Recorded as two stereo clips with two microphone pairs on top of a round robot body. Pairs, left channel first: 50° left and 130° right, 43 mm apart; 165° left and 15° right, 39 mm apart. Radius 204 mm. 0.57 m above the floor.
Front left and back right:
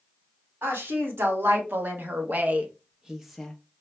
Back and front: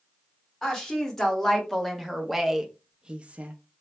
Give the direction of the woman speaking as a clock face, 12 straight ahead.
4 o'clock.